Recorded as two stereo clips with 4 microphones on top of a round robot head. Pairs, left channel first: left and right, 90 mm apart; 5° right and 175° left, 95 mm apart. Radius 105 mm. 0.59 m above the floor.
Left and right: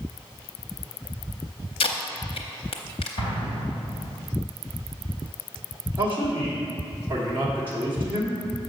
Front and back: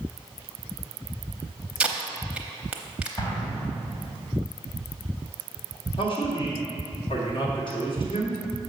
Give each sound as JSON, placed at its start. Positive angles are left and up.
{"t": 1.8, "sound": "tape being pulled", "azimuth_deg": 100, "distance_m": 0.6}
{"t": 3.2, "sound": "an explosion", "azimuth_deg": 45, "distance_m": 3.0}
{"t": 6.0, "sound": "a man speaking", "azimuth_deg": -25, "distance_m": 1.6}